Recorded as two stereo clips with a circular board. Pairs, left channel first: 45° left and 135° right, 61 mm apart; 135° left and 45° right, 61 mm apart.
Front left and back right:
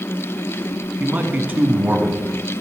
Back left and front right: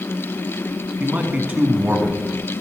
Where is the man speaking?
90° right, 1.4 m.